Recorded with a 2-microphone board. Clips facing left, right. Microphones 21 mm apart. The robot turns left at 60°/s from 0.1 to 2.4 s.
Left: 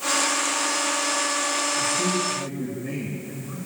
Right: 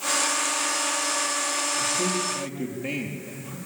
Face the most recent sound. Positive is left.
turn(degrees=-60)